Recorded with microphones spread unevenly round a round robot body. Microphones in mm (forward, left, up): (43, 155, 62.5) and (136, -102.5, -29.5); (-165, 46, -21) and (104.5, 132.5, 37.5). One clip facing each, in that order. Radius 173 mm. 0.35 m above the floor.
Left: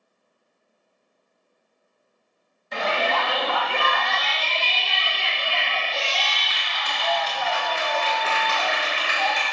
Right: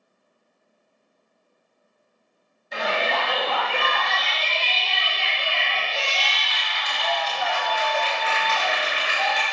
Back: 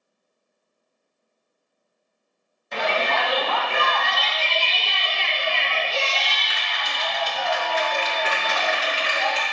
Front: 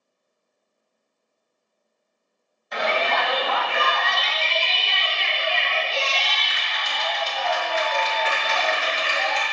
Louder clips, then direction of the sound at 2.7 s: Left 1 dB, even; 160° left.